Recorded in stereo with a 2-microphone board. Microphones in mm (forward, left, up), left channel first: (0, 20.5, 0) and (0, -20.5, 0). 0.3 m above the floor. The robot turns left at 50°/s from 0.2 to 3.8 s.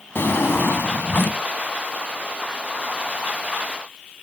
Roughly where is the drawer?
Left.